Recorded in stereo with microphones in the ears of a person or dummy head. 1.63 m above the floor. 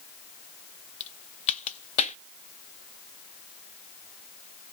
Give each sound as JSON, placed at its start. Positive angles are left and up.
{"t": 1.0, "sound": "a crack", "side_deg": 35, "distance_m": 0.6}